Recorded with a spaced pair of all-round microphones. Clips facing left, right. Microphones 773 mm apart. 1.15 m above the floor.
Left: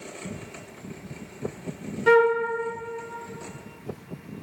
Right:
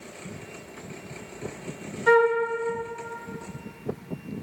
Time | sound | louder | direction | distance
2.1 | a flute | left 1 dB | 60° left (ahead or behind) | 0.8 m